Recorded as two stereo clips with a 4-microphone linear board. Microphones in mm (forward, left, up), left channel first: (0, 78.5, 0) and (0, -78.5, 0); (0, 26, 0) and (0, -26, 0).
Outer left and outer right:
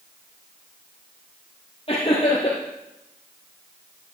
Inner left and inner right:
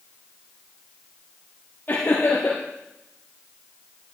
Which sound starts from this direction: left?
Laughter, at 1.9 s.